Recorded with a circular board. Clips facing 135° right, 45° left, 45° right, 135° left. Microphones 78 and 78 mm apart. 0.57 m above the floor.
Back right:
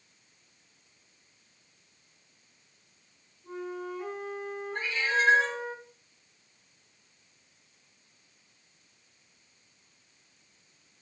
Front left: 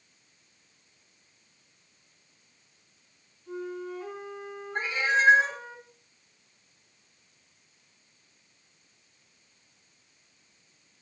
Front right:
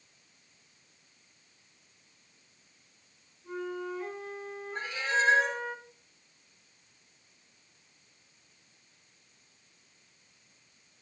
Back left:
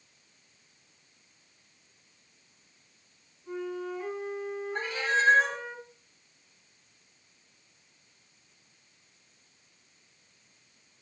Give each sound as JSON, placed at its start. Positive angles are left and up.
{"t": 3.4, "sound": "a flute", "azimuth_deg": -150, "distance_m": 4.5}
{"t": 4.8, "sound": "a cat meowing", "azimuth_deg": 115, "distance_m": 1.5}